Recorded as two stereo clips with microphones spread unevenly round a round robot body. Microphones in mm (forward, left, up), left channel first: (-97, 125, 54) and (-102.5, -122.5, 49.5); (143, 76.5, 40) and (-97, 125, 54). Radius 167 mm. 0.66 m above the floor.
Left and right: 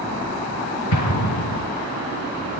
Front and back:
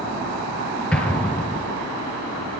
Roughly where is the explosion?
Left.